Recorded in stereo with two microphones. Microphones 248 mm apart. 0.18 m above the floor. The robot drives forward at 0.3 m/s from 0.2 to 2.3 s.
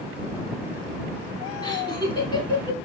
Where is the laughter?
20° left (ahead or behind), 1.0 m; by 2.8 s 15° left (ahead or behind), 1.1 m.